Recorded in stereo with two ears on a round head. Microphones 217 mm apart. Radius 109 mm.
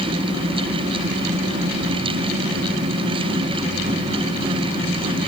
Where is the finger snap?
I don't hear a finger snap.